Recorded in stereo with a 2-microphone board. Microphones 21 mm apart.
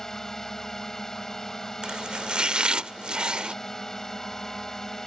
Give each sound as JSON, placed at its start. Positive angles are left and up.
{"t": 0.0, "sound": "a drone", "side_deg": 30}
{"t": 1.8, "sound": "chopping", "side_deg": -50}